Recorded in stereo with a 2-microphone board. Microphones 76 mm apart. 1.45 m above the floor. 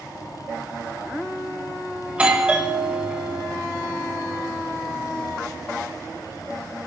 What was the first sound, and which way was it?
A doorbell, 15° right (ahead or behind).